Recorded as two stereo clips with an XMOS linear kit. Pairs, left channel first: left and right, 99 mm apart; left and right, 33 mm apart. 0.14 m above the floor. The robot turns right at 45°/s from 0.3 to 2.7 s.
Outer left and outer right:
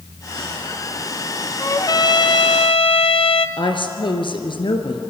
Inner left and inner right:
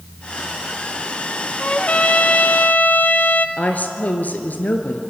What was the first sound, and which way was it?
A trumpet, 30° left.